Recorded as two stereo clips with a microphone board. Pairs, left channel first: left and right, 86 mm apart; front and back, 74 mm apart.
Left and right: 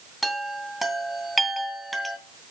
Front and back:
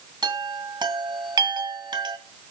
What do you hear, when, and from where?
0.2 s a chime: straight behind, 1.8 m